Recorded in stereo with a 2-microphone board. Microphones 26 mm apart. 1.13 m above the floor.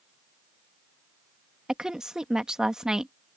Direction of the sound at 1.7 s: 30° right (ahead or behind).